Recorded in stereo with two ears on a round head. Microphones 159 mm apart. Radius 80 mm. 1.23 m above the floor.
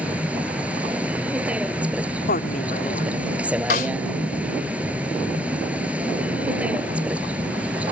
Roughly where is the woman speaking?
Left.